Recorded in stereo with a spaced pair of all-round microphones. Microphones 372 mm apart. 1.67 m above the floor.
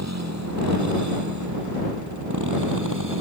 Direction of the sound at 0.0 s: 45° right (ahead or behind).